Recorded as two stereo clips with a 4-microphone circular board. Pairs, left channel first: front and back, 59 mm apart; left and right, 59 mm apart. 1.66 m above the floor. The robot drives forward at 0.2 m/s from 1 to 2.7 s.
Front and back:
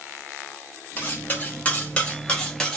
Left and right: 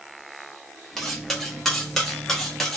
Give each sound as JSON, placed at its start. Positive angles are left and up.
{"t": 1.0, "sound": "cutlery clinking", "azimuth_deg": 5, "distance_m": 0.9}